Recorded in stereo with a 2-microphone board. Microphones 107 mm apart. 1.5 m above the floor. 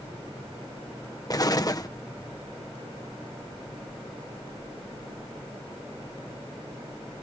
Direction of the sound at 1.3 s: 35° left (ahead or behind).